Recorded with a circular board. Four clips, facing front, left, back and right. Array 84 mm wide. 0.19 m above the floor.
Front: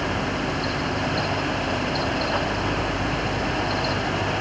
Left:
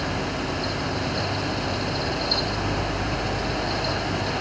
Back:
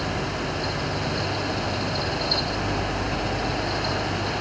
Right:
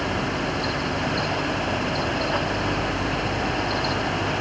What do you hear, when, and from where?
Only background noise.